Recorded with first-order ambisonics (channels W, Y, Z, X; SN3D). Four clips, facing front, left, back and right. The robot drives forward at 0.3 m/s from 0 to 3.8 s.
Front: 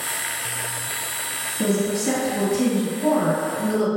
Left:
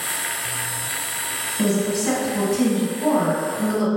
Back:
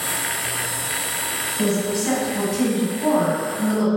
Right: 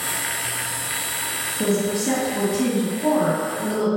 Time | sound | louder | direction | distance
1.6 | a woman speaking | left 1 dB, front 1 dB | 125° left | 1.4 m